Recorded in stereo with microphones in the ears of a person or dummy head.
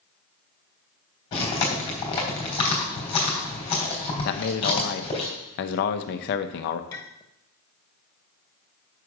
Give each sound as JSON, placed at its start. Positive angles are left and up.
{"t": 1.3, "sound": "chewing", "side_deg": 25, "distance_m": 3.0}
{"t": 4.2, "sound": "a man speaking", "side_deg": 55, "distance_m": 0.8}
{"t": 6.9, "sound": "a clink", "side_deg": 15, "distance_m": 1.1}